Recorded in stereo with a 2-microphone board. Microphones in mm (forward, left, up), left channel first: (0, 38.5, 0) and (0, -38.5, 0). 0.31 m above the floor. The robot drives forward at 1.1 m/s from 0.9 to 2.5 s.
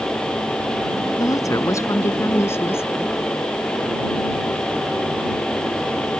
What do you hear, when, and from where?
1.2 s a woman speaking: 50° left (ahead or behind); by 3.1 s 35° left (ahead or behind)